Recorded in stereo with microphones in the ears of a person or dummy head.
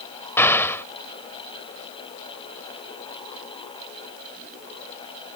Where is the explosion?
5° left (ahead or behind).